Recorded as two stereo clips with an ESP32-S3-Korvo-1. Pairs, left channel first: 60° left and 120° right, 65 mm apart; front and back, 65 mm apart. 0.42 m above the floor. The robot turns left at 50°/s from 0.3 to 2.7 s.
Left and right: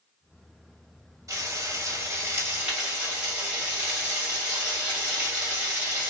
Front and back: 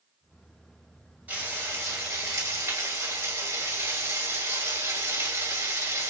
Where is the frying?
115° right, 2.5 m; by 6.1 s 170° left, 2.5 m.